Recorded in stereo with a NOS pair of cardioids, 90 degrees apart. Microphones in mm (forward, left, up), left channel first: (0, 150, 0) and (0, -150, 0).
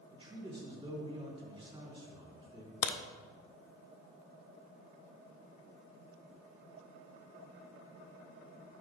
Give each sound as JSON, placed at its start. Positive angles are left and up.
{"t": 0.1, "sound": "a man speaking", "azimuth_deg": -20, "distance_m": 2.5}
{"t": 2.8, "sound": "a crack", "azimuth_deg": 55, "distance_m": 0.7}